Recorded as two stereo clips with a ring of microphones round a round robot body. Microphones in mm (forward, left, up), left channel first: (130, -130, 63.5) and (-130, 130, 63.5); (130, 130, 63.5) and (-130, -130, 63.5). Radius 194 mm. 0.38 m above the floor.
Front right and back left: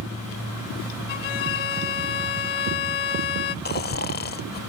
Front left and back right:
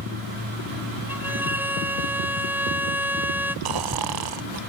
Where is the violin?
50° right.